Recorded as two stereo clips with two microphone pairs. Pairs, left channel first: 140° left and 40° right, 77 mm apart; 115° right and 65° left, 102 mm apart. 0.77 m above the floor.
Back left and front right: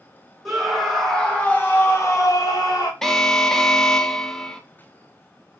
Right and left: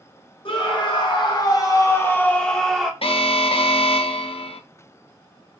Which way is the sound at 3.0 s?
135° right.